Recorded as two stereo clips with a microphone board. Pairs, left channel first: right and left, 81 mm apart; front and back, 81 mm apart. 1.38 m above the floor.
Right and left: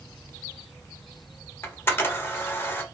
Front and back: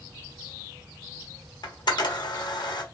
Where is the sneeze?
No sneeze in this recording.